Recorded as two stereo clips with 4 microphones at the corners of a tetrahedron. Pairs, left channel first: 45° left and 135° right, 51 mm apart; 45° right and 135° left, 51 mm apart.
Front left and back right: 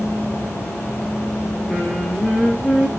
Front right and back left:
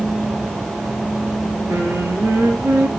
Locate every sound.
1.7 s singing: 120° left, 4 m